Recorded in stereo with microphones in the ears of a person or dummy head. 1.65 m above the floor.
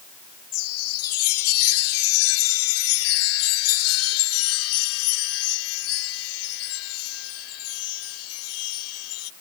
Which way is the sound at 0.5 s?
85° left.